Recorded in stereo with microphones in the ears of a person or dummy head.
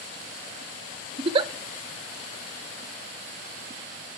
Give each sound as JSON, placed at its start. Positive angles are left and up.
{"t": 1.2, "sound": "a giggle", "side_deg": -35, "distance_m": 0.6}